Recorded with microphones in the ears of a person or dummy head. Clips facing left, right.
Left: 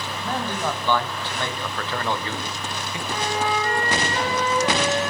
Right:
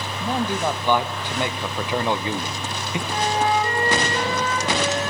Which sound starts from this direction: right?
A flute, at 3.1 s.